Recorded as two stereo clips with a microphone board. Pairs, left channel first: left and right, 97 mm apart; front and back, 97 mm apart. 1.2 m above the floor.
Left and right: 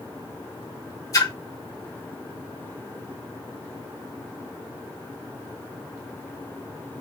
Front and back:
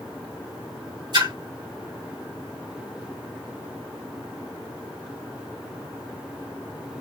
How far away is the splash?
About 3 m.